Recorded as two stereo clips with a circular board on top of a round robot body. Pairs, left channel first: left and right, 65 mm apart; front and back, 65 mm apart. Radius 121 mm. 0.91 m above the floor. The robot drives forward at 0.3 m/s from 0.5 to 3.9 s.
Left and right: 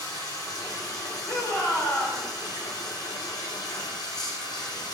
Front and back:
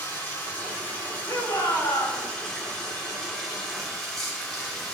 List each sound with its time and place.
0.0 s running water: 70° left, 3.5 m; by 4.9 s 85° left, 3 m
1.3 s a shout: 35° left, 3.5 m; by 2.2 s 40° left, 3 m